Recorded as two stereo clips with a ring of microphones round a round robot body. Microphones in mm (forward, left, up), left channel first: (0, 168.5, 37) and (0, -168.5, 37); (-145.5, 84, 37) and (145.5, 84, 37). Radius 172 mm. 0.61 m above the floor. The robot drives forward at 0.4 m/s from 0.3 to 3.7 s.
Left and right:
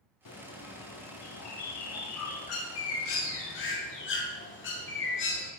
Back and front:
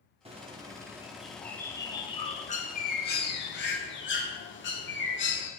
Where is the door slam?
No door slam in this recording.